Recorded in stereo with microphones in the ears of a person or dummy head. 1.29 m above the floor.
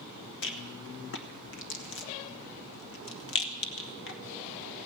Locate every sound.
0.4 s a rattle: 65° left (ahead or behind), 1.1 m